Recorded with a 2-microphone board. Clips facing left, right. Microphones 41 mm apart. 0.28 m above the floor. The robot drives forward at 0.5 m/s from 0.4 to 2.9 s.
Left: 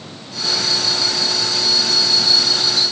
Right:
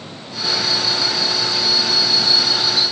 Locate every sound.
Only background noise.